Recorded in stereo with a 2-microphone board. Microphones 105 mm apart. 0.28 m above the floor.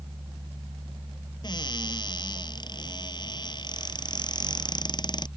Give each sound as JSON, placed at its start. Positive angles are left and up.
{"t": 1.4, "sound": "a cupboard door", "side_deg": 45}